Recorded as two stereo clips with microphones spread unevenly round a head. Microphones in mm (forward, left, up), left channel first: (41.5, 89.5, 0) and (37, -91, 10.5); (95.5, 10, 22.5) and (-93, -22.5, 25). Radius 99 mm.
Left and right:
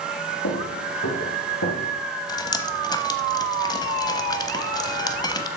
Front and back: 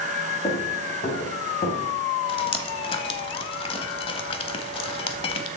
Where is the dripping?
40° left, 0.9 m.